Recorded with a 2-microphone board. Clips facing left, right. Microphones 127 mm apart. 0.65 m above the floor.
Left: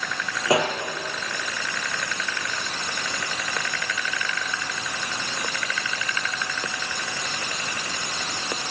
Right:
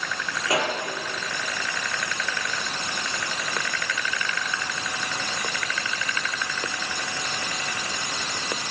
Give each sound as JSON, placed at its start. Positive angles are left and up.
{"t": 0.5, "sound": "a pop", "side_deg": 25, "distance_m": 3.0}